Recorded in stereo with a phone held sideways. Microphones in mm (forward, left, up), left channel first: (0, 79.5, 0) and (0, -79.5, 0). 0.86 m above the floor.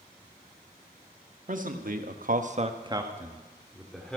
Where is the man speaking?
55° right (ahead or behind), 1.8 m; by 4.2 s 5° left (ahead or behind), 2.5 m.